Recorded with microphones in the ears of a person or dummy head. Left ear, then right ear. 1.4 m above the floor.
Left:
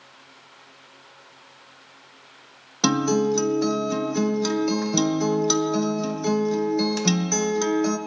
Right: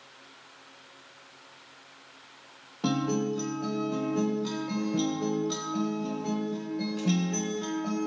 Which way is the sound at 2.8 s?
70° left (ahead or behind).